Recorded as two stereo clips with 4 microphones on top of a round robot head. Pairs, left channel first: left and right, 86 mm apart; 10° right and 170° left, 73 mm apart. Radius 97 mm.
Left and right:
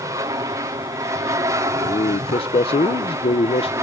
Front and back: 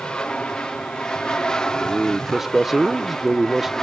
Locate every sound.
0.0 s an aircraft: 85° right; by 3.8 s 90° right
1.8 s a man speaking: 80° left